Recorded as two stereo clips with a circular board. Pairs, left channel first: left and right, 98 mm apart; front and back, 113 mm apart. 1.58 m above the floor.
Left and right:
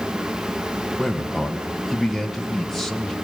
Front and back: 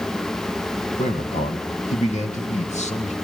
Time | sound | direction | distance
1.0 | a man speaking | straight ahead | 2.5 m